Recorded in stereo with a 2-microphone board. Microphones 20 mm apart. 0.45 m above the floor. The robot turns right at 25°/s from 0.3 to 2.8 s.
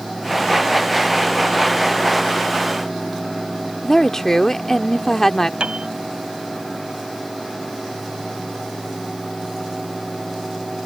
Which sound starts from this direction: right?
A piano, at 5.6 s.